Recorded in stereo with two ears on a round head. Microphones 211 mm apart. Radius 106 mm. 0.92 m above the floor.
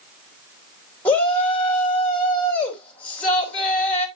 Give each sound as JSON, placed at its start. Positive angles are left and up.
{"t": 1.1, "sound": "a shout", "side_deg": 5, "distance_m": 4.0}